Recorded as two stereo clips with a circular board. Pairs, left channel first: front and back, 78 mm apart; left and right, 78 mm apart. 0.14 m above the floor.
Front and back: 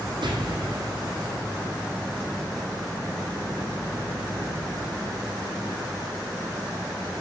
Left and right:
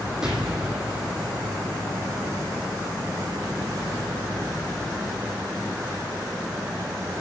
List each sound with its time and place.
0.2 s an explosion: 170° right, 1.7 m